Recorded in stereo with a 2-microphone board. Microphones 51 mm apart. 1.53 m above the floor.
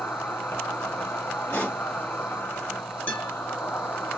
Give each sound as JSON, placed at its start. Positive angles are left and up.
{"t": 0.0, "sound": "an insect", "side_deg": 45, "distance_m": 0.9}
{"t": 1.5, "sound": "a pop", "side_deg": 50, "distance_m": 1.0}
{"t": 3.1, "sound": "a guitar", "side_deg": 30, "distance_m": 1.3}